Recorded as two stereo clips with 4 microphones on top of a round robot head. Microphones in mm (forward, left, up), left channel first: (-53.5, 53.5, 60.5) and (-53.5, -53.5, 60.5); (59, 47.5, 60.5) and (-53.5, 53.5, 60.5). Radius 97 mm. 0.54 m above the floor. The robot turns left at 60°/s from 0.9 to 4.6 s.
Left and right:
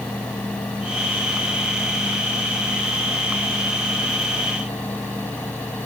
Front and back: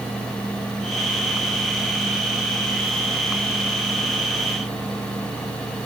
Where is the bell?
I don't hear a bell.